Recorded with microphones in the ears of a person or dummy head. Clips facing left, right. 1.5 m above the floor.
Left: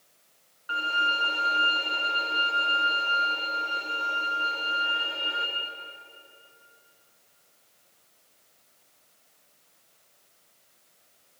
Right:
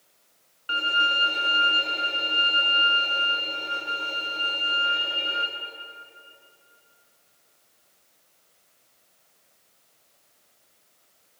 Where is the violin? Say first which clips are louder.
Right 2 dB; 30° right (ahead or behind), 0.8 m.